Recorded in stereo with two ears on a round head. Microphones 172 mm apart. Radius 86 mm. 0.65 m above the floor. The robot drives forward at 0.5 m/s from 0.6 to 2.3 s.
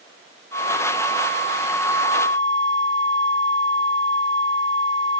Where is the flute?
85° right, 3 m; by 5.2 s 75° right (ahead or behind), 3 m.